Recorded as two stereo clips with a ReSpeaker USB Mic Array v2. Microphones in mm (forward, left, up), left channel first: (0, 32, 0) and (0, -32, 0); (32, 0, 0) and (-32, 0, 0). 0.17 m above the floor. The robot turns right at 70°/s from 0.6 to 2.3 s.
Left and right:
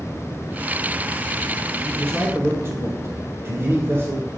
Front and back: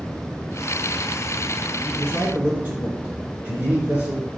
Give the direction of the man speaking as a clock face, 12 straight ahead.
5 o'clock.